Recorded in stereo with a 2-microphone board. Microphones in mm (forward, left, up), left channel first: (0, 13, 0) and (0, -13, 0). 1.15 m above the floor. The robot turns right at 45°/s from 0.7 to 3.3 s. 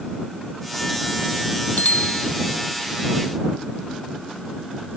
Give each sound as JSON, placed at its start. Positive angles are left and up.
{"t": 1.8, "sound": "a bicycle bell", "side_deg": 75}